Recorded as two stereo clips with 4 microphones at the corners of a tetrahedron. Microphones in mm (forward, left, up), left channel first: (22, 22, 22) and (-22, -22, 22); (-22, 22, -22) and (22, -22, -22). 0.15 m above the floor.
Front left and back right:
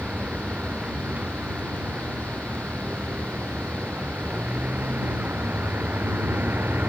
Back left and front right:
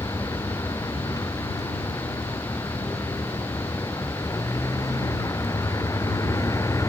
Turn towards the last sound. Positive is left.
turn(degrees=165)